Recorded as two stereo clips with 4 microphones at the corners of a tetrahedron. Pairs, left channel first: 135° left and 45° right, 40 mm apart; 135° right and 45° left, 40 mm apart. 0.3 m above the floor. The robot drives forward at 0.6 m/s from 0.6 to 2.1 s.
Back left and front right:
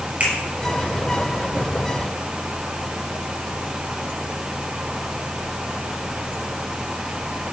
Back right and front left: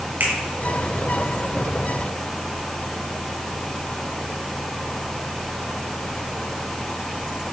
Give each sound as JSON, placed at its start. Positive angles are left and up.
{"t": 0.2, "sound": "a finger snap", "azimuth_deg": 5, "distance_m": 5.5}